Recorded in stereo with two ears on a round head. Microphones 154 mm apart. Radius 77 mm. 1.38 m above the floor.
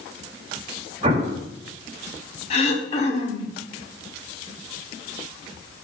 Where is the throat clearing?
40° left (ahead or behind), 1.3 m.